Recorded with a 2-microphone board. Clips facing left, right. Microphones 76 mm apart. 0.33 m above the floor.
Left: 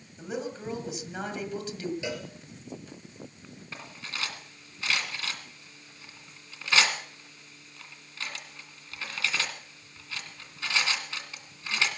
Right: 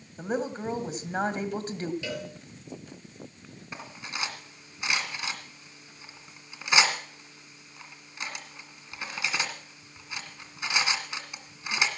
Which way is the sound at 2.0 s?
20° left (ahead or behind).